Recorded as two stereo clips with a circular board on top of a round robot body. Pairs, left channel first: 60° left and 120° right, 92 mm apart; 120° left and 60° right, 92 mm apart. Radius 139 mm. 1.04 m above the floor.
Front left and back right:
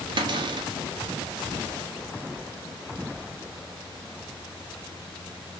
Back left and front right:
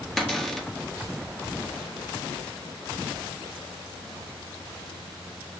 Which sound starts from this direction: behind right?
A cupboard door, at 0.2 s.